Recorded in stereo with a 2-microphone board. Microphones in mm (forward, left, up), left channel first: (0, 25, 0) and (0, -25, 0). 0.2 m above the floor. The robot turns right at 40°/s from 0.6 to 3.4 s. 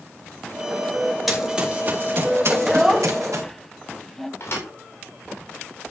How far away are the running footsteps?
About 4.5 m.